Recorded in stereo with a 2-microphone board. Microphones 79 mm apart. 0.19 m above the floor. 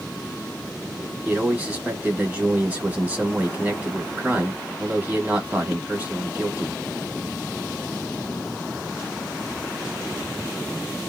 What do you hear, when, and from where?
1.2 s a man speaking: 20° right (ahead or behind), 1.2 m